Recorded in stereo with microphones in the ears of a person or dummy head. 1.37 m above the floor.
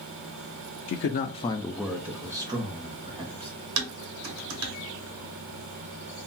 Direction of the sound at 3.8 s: 75° right (ahead or behind).